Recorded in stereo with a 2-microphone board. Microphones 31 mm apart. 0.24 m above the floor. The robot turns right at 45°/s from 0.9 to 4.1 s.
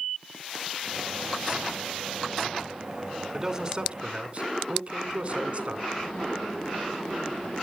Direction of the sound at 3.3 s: 165° right.